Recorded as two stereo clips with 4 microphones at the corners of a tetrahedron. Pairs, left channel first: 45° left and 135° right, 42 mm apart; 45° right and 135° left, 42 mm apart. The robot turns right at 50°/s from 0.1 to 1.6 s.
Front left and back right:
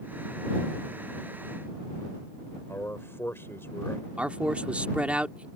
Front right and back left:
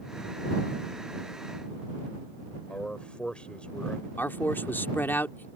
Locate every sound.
2.7 s a man speaking: 20° left
4.2 s a man speaking: 75° right